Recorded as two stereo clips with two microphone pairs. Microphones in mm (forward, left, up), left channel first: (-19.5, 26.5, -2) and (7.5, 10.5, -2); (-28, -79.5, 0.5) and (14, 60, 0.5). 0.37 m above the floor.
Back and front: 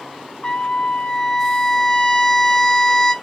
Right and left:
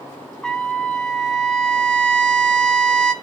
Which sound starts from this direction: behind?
A trumpet, at 0.4 s.